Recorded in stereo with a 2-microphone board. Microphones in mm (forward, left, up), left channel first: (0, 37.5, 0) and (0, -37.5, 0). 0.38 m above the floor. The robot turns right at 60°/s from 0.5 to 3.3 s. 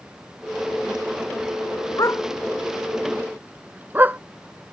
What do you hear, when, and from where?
2.0 s a dog barking: 50° left (ahead or behind); by 4.2 s 25° right (ahead or behind)